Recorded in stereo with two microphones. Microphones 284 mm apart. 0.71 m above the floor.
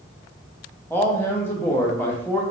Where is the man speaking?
10° left (ahead or behind), 0.8 m.